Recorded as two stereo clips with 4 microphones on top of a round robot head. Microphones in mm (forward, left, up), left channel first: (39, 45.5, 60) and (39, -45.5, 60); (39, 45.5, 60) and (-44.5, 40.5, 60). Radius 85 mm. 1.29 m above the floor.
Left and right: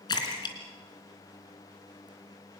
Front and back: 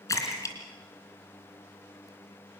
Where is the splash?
55° left, 3.5 m.